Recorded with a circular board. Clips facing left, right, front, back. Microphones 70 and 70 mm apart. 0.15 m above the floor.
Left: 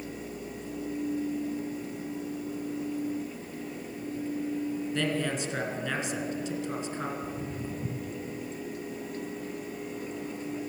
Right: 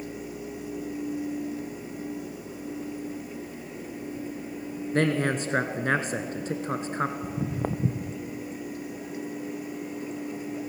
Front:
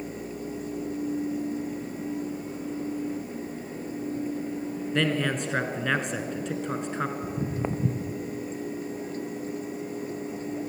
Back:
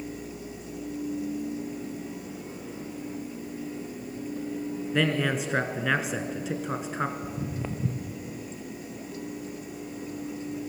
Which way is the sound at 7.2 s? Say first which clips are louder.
Right 5 dB, front 4 dB; 65° right.